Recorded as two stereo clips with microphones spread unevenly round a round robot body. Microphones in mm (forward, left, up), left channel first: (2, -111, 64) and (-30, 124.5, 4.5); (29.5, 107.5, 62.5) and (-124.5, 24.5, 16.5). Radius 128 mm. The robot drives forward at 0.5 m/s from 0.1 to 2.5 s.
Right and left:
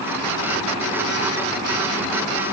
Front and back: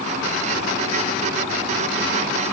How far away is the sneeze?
No sneeze in this recording.